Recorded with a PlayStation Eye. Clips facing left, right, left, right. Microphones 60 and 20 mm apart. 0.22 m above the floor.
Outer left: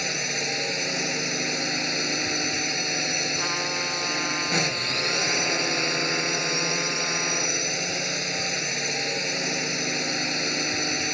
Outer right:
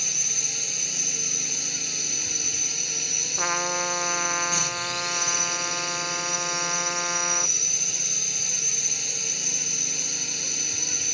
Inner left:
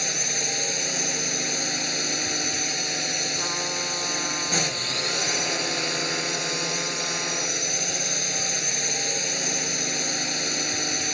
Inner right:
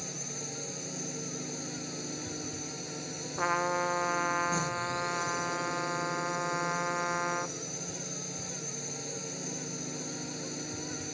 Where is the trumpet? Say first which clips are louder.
Outer right 1 dB, inner left 3 dB; 20° right (ahead or behind).